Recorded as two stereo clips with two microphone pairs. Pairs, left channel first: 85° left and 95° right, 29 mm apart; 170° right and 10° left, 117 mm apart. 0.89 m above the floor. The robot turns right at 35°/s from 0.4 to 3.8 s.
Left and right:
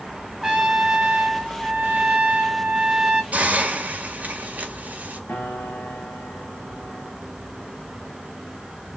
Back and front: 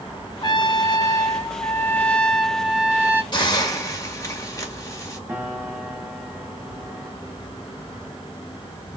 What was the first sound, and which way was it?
A trumpet, 160° right.